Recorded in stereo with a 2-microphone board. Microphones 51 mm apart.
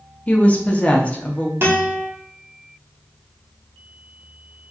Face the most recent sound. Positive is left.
turn(degrees=-40)  # may be behind; listen again after turning